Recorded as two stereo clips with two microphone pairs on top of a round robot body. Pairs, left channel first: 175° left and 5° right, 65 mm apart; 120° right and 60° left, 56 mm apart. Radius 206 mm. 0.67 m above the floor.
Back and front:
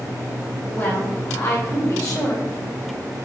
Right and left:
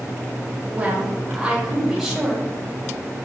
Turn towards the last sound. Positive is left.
turn(degrees=145)